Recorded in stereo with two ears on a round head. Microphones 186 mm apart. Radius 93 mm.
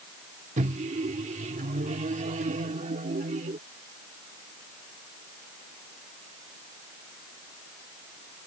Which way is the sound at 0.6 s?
35° right (ahead or behind).